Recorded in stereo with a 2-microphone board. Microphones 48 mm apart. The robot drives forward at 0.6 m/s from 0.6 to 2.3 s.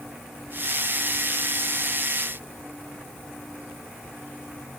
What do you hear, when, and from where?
Only background noise.